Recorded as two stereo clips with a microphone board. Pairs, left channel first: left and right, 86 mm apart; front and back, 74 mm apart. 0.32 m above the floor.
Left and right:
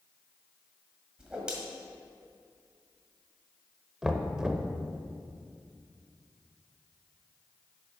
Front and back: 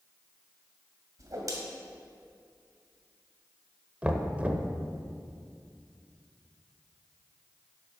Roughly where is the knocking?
Behind.